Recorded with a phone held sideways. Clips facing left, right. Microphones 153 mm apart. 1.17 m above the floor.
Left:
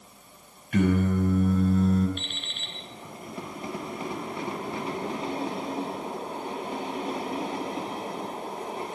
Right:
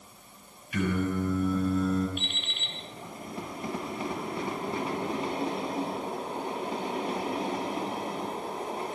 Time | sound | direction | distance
0.7 | singing | 60° left (ahead or behind) | 7 m
2.2 | an alarm clock | 5° right (ahead or behind) | 6.5 m